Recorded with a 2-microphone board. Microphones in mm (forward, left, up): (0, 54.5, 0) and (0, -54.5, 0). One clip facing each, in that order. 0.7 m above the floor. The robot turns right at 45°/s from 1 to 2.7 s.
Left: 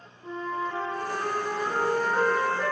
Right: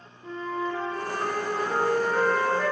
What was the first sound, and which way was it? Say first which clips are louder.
A flute: right 1 dB; 15° left (ahead or behind).